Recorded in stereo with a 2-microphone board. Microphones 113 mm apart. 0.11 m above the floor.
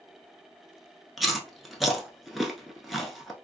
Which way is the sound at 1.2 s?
Centre (ahead or behind).